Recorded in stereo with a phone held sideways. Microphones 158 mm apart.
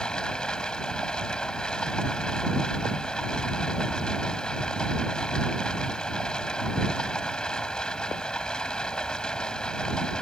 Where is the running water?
5° left (ahead or behind).